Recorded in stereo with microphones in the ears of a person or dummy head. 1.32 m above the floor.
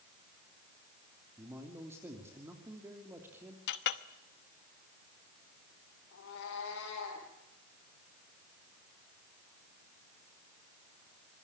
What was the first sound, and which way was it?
A man speaking, 15° right (ahead or behind).